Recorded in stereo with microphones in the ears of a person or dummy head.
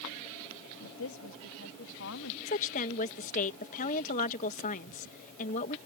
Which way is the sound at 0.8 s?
70° left (ahead or behind).